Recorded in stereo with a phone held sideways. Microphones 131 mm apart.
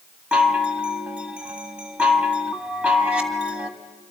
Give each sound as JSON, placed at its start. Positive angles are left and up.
{"t": 0.3, "sound": "a chime", "side_deg": -10, "distance_m": 1.8}